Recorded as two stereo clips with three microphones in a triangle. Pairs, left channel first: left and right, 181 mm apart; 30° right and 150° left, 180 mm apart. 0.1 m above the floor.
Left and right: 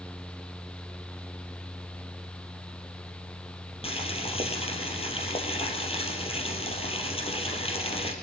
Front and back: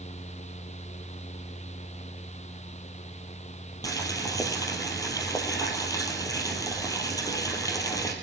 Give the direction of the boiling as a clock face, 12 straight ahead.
11 o'clock.